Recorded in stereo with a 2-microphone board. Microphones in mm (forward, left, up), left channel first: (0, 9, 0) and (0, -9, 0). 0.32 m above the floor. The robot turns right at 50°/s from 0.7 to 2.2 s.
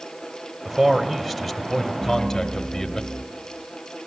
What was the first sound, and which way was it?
A man speaking, 35° right.